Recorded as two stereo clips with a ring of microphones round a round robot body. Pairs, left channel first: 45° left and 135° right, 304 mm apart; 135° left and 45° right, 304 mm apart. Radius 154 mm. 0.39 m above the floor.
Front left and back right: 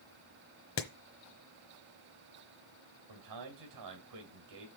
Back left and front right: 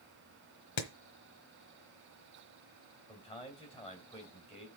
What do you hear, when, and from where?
0.8 s hammering: 95° left, 1.2 m
3.1 s a man speaking: 140° right, 3 m